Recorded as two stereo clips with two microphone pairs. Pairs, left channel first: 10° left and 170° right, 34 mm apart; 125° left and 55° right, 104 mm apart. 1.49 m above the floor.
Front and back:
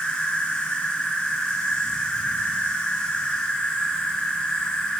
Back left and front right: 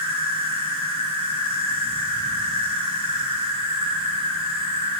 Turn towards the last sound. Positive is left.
turn(degrees=-40)